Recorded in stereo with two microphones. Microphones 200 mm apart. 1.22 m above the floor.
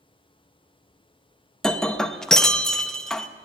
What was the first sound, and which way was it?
Breaking glass, 5° left (ahead or behind).